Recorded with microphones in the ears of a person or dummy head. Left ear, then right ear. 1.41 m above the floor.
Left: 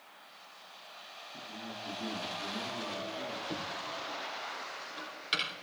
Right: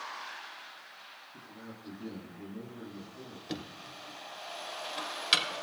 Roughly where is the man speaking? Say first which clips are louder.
Left 6 dB; left.